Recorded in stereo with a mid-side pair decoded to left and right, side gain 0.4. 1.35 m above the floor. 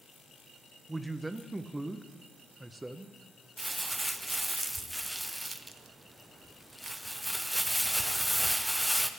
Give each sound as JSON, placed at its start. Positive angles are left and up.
{"t": 0.9, "sound": "a man speaking", "azimuth_deg": -15, "distance_m": 0.6}
{"t": 3.6, "sound": "crumpling", "azimuth_deg": -10, "distance_m": 0.5}